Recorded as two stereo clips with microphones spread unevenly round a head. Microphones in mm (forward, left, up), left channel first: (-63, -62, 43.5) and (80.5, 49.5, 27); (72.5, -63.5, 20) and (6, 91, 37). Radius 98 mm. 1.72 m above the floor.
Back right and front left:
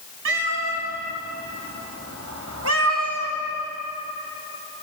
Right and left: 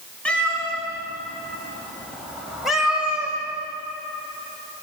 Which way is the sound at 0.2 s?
20° left.